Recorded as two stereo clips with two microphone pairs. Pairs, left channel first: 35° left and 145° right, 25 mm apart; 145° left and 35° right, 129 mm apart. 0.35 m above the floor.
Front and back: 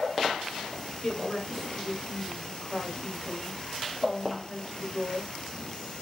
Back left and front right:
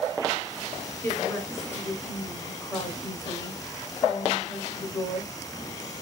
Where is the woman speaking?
85° left, 1.0 m.